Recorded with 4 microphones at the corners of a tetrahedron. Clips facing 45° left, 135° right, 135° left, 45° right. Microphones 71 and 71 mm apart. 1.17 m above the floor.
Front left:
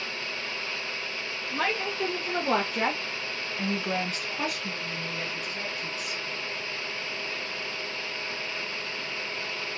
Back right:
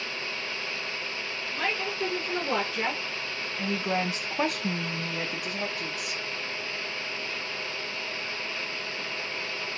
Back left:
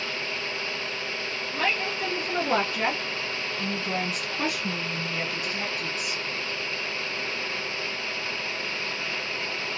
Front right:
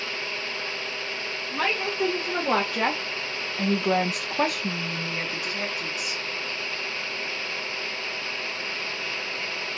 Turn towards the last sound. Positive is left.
turn(degrees=-130)